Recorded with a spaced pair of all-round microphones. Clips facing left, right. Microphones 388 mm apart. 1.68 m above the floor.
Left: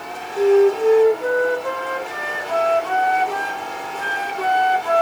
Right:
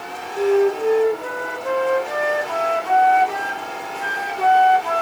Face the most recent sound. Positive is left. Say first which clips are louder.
# left 3 dB
turn(degrees=20)  # may be behind; listen again after turning